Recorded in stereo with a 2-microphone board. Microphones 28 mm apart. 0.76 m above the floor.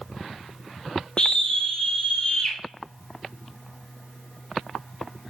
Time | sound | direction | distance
1.2 | a scream | 30° left (ahead or behind) | 1.8 m